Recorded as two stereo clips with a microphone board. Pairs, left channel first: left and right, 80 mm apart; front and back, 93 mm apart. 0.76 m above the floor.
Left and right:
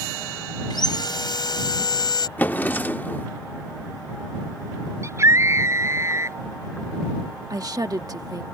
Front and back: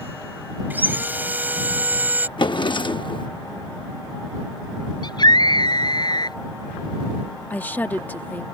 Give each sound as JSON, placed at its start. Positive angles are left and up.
{"t": 0.7, "sound": "sawing", "azimuth_deg": 110}
{"t": 2.4, "sound": "a drawer", "azimuth_deg": 25}
{"t": 5.0, "sound": "a scream", "azimuth_deg": -40}
{"t": 7.5, "sound": "a woman speaking", "azimuth_deg": -70}